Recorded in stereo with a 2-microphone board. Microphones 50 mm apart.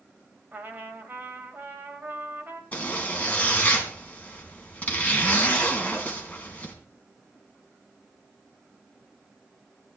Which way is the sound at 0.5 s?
40° right (ahead or behind).